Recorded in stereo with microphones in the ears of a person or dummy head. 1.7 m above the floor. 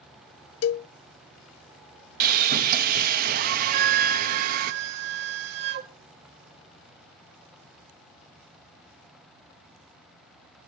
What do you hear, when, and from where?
0.6 s a cowbell: 75° left (ahead or behind), 0.5 m
2.2 s sawing: 50° right (ahead or behind), 0.6 m
3.7 s a flute: 55° right (ahead or behind), 0.8 m